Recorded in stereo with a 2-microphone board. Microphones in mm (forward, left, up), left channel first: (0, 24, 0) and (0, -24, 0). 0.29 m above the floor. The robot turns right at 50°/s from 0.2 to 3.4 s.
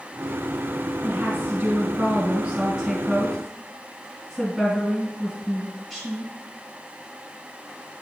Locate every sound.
1.0 s a woman speaking: 115° right, 1.6 m; by 6.3 s 5° left, 1.6 m